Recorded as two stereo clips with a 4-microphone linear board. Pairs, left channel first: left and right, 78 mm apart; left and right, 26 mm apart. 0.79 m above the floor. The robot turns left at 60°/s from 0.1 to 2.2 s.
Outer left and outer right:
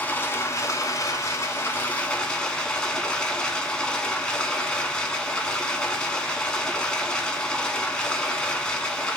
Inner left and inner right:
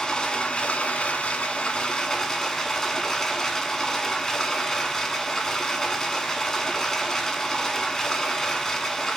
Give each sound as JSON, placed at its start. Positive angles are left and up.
{"t": 0.0, "sound": "running water", "azimuth_deg": 140, "distance_m": 0.8}